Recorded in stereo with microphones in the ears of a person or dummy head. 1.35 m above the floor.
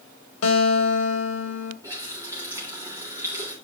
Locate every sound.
0.4 s a guitar: 75° left (ahead or behind), 1.9 m
1.8 s a running tap: 20° right (ahead or behind), 3 m